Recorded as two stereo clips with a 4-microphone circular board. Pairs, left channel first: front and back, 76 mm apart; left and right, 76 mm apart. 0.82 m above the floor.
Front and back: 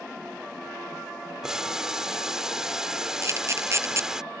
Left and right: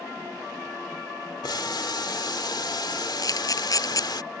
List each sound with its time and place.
1.4 s boiling: 95° left
3.2 s a camera shutter: 125° left